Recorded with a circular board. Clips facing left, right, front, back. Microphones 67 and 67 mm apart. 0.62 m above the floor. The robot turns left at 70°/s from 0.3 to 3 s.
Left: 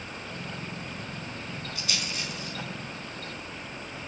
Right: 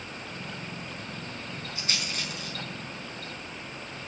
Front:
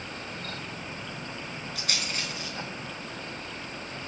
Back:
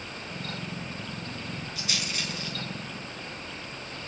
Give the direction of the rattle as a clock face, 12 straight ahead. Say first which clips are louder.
Right 1 dB, front 1 dB; 1 o'clock.